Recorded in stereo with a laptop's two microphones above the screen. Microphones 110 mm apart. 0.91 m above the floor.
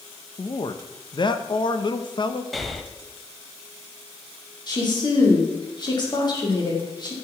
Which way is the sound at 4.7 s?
40° left (ahead or behind).